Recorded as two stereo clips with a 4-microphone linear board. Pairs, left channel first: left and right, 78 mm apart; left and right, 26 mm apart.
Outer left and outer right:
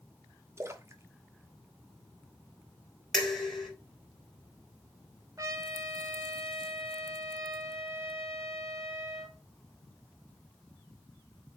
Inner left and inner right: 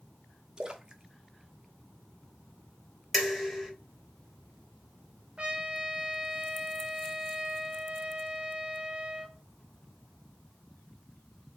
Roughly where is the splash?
Right.